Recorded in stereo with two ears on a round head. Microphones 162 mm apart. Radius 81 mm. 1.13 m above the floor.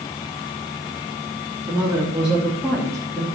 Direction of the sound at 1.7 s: 15° right (ahead or behind).